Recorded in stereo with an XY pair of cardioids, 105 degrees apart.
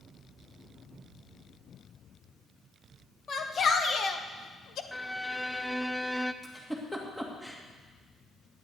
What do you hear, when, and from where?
3.3 s a shout: 45° left, 1.8 m; by 4.8 s 65° left, 1.1 m
4.9 s a violin: straight ahead, 0.6 m
6.4 s a giggle: 10° left, 2 m